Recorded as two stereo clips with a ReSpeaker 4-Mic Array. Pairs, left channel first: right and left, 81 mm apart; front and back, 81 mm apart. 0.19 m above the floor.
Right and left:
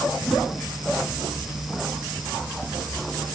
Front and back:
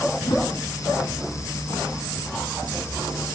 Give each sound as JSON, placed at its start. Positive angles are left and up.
{"t": 0.2, "sound": "a whoosh", "azimuth_deg": 5, "distance_m": 5.0}